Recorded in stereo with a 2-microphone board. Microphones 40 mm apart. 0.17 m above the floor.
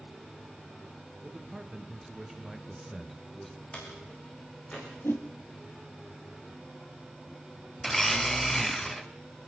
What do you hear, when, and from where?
1.2 s a man speaking: 15° right (ahead or behind), 2.5 m; by 3.6 s 15° left (ahead or behind), 2 m
3.7 s a door slam: 30° left (ahead or behind), 8.5 m
5.0 s a whoosh: 70° left (ahead or behind), 2.5 m
7.8 s a blender: 5° left (ahead or behind), 1.4 m